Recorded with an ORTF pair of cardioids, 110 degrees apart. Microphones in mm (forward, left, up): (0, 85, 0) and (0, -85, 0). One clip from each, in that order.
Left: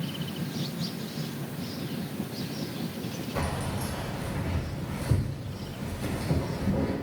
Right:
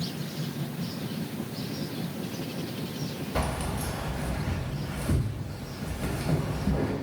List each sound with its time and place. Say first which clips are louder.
3.4 s keys jangling: right 2 dB; 40° right, 1.6 m